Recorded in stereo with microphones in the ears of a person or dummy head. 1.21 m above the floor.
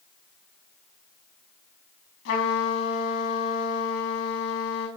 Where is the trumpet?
55° left (ahead or behind), 5 m.